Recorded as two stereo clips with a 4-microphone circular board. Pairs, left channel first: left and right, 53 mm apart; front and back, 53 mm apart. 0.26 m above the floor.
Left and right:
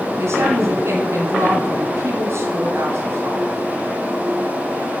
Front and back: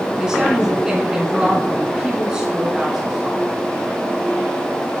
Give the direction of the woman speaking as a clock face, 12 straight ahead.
4 o'clock.